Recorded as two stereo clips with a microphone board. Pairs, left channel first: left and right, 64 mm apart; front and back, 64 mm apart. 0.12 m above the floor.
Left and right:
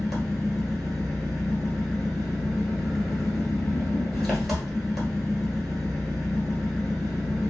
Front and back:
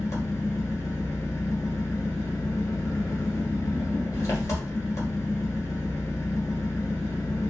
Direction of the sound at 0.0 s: Straight ahead.